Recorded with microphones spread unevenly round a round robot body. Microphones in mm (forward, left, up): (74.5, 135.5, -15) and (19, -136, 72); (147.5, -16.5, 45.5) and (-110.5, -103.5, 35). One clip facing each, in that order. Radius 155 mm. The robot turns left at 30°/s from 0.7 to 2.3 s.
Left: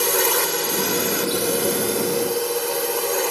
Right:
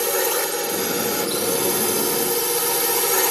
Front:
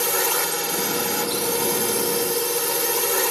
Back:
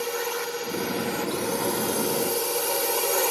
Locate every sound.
0.0 s a drone: 5° left; by 3.3 s 40° right